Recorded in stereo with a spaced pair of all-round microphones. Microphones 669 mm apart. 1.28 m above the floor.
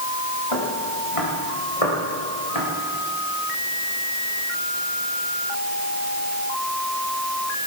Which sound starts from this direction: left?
Footsteps, at 0.5 s.